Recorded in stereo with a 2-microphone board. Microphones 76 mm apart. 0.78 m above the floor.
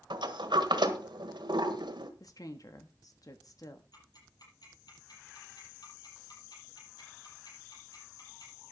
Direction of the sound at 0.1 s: 85° right.